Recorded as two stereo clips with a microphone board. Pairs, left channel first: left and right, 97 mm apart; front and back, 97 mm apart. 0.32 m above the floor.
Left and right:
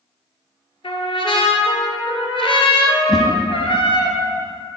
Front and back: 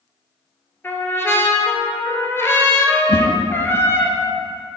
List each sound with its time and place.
0.8 s a trumpet: 65° left, 1.1 m
3.1 s a whoosh: straight ahead, 1.0 m